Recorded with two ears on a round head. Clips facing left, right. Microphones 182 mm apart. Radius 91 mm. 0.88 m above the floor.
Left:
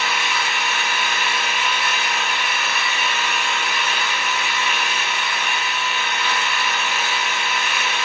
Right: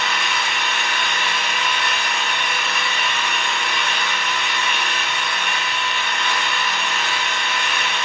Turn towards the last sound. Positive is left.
turn(degrees=5)  # may be behind; listen again after turning